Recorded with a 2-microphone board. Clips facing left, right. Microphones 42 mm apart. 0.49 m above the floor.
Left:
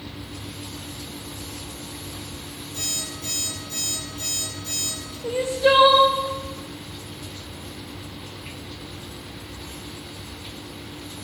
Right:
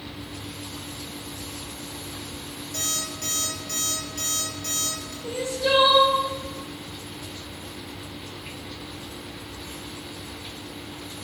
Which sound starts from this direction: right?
An alarm clock, at 2.7 s.